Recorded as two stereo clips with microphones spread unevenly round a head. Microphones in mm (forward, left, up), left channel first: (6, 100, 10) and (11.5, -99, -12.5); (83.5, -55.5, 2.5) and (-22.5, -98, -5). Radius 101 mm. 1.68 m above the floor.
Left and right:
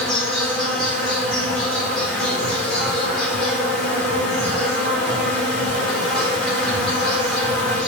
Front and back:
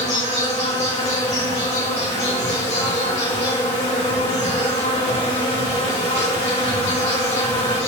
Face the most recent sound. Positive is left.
turn(degrees=5)